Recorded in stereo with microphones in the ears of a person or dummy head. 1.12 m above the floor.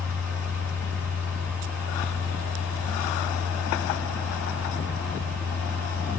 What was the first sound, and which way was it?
A fan, 5° left (ahead or behind).